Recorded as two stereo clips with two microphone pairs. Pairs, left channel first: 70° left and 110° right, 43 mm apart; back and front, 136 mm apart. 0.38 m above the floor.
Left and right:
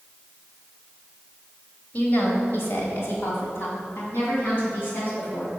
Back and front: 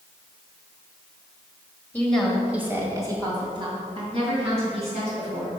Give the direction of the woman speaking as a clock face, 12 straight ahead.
8 o'clock.